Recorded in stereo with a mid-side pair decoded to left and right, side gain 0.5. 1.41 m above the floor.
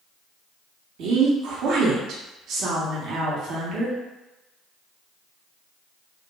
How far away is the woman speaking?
About 1.1 m.